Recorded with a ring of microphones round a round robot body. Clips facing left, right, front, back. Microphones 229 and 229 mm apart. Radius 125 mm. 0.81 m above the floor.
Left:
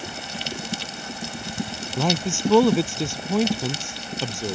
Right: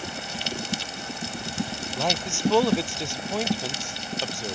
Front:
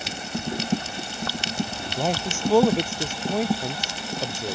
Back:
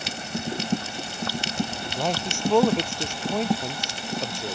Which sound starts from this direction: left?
A man speaking, at 2.0 s.